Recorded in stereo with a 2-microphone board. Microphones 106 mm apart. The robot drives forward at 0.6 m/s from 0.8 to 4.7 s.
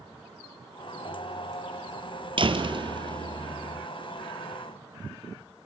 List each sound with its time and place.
2.4 s a door slam: 50° right (ahead or behind), 2.5 m; by 3.9 s 40° right (ahead or behind), 3 m